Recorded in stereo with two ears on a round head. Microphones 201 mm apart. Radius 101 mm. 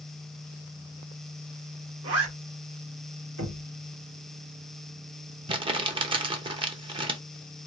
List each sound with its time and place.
2.0 s a zipper: 70° right (ahead or behind), 2.5 m
3.4 s knocking: 65° right (ahead or behind), 1.9 m
5.5 s crumpling: 25° right (ahead or behind), 0.8 m